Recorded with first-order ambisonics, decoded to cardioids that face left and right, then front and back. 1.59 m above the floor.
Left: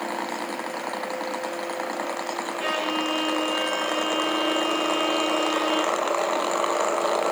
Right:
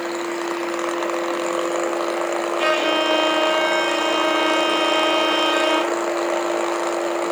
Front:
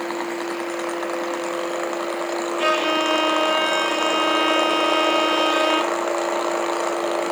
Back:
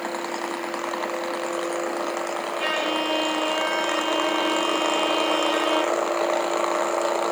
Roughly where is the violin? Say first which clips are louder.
Right 7 dB, front 5 dB; ahead right.